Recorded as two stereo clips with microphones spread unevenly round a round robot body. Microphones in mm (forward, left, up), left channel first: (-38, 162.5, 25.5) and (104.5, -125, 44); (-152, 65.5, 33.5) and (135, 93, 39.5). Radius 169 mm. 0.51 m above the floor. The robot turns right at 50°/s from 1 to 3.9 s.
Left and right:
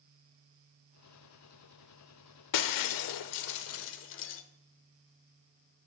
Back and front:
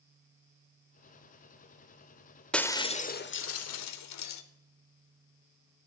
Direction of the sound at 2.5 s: 100° left.